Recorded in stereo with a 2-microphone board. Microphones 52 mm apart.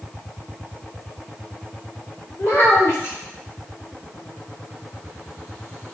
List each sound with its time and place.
2.4 s a child speaking: 50° left (ahead or behind), 1.9 m